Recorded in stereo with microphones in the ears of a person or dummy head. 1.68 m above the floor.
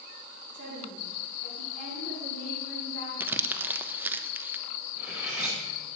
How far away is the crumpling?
About 0.8 m.